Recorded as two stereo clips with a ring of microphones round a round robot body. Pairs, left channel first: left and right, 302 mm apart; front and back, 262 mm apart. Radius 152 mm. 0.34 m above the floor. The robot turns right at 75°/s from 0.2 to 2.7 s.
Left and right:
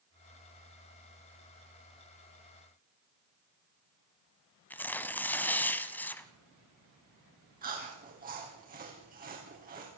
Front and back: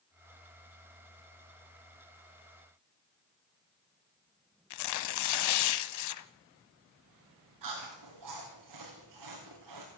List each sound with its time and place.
4.7 s tearing paper: 5° left, 1.1 m
7.6 s chewing: 155° right, 6 m